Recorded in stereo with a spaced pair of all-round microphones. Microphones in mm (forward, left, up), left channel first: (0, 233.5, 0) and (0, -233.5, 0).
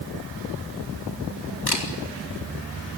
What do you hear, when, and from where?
1.7 s a camera shutter: 55° left (ahead or behind), 4 m